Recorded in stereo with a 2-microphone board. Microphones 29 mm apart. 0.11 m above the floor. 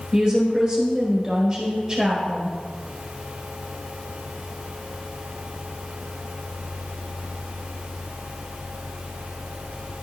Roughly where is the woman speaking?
Centre.